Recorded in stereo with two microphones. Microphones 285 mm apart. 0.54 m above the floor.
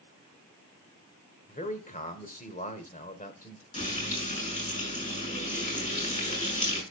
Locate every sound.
1.5 s a man speaking: 25° left (ahead or behind), 1.7 m
3.7 s frying: 25° left (ahead or behind), 6 m